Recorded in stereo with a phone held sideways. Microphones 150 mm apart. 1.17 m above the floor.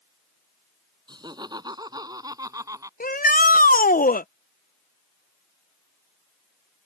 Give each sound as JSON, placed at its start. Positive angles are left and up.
{"t": 1.1, "sound": "laughter", "side_deg": -30}
{"t": 3.0, "sound": "a shout", "side_deg": 65}